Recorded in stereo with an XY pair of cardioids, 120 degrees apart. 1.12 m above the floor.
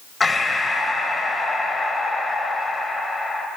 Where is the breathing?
20° left, 2.5 m.